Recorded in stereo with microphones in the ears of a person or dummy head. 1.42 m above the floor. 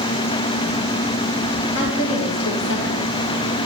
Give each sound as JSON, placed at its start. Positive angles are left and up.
{"t": 1.8, "sound": "a woman speaking", "side_deg": 75, "distance_m": 2.5}